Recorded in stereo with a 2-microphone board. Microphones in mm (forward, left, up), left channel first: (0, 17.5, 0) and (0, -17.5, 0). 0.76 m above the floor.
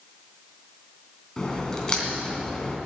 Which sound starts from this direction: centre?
A crack, at 1.4 s.